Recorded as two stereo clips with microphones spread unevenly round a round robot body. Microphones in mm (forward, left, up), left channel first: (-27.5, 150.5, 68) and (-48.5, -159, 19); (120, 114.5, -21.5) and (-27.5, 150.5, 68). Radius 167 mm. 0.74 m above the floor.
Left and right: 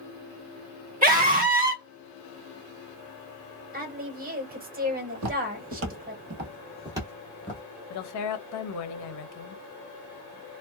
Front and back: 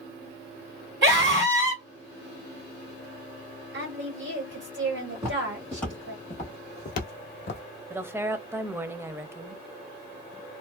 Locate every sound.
1.0 s a scream: 145° right, 1.6 m
3.7 s a woman speaking: 150° right, 1.5 m
5.2 s footsteps: 140° right, 1.4 m; by 7.6 s 15° left, 1.1 m
7.9 s a woman speaking: 65° left, 0.7 m